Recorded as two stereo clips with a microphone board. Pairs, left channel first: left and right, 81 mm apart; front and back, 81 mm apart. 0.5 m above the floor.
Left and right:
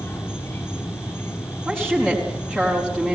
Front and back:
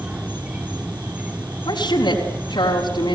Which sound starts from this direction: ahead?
A woman speaking, at 1.6 s.